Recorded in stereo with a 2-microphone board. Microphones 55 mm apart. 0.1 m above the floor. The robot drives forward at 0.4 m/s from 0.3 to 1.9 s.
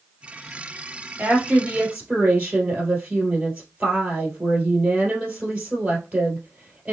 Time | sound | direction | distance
1.2 | a woman speaking | 25° right (ahead or behind) | 2 m